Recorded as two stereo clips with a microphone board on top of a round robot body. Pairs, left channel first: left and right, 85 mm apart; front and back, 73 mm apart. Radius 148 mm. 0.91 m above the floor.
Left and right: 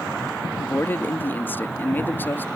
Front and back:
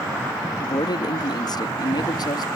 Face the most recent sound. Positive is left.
turn(degrees=25)